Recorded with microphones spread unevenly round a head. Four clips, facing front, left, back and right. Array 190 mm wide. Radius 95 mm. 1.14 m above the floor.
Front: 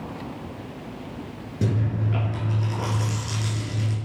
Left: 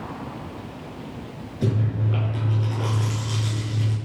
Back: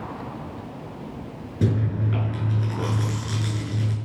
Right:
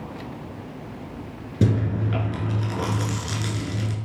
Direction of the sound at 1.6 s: 90° right.